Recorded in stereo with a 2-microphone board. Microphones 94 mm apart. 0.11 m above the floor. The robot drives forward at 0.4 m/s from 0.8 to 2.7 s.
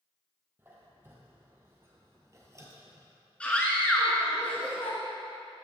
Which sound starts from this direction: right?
A squeak, at 0.6 s.